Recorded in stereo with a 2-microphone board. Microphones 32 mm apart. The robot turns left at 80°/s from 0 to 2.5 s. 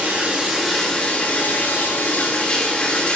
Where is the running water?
125° right, 4.5 m; by 3.2 s 35° left, 4.5 m.